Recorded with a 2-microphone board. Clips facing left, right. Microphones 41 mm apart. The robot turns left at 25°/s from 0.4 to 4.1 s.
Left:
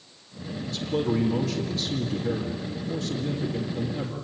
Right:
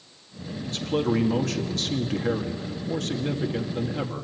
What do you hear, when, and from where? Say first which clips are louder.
0.6 s a man speaking: right 2 dB; 55° right, 2 m; by 4.2 s 140° right, 2 m